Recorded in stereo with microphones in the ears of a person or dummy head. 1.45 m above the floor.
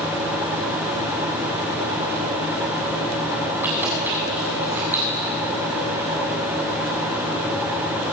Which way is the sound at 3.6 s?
15° right (ahead or behind).